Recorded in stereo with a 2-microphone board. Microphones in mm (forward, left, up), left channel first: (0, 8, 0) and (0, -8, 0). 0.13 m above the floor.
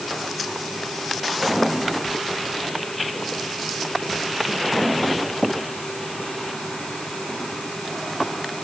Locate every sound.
Only background noise.